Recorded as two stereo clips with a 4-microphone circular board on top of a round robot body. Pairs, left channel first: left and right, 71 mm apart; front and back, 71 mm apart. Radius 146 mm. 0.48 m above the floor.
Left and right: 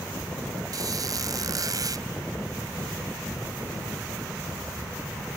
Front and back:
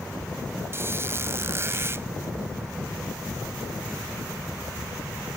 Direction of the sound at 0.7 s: 125° right.